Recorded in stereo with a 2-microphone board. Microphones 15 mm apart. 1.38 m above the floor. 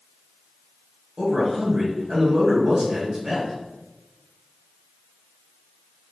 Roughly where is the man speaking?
Right.